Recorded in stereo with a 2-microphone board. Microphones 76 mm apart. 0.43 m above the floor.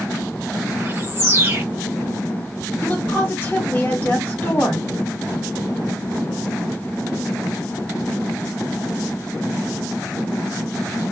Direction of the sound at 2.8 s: 25° left (ahead or behind).